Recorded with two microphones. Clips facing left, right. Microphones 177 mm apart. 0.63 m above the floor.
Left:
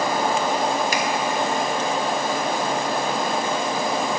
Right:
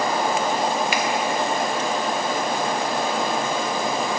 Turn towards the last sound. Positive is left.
turn(degrees=40)  # may be behind; listen again after turning